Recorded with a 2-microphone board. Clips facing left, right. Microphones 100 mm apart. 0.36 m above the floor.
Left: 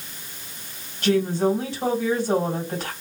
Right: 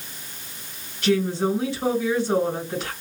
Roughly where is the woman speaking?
Left.